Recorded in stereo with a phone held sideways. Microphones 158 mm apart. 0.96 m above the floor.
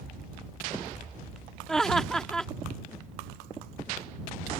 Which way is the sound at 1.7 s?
5° left (ahead or behind).